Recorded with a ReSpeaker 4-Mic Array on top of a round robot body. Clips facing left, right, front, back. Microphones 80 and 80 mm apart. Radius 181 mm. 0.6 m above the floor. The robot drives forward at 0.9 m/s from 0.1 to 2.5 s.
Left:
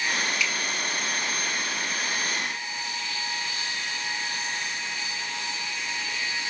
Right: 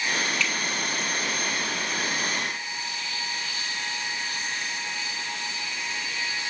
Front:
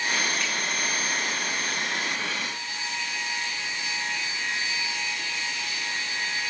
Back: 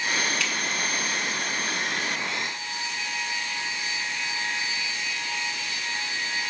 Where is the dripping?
170° left, 2.5 m.